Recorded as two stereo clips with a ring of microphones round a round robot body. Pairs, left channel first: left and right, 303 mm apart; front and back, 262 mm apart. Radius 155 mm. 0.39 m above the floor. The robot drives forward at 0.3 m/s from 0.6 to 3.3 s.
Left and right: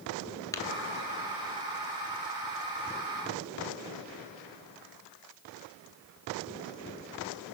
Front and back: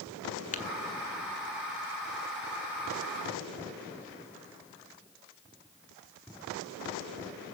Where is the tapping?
20° left, 1.5 m.